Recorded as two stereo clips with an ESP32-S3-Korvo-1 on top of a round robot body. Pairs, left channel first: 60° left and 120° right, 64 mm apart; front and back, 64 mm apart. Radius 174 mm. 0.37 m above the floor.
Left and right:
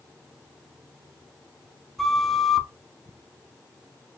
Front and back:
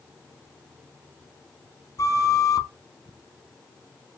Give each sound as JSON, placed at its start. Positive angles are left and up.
{"t": 2.0, "sound": "a flute", "azimuth_deg": -25, "distance_m": 0.6}